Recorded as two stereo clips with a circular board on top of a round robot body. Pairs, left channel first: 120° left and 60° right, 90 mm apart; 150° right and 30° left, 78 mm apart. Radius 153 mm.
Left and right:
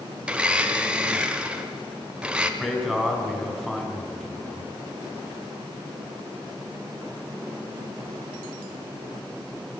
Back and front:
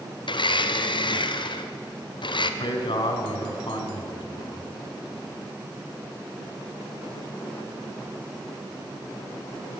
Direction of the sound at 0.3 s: 140° right.